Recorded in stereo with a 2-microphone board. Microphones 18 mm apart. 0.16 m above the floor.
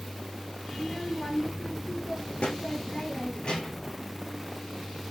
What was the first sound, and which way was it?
A child speaking, 55° left (ahead or behind).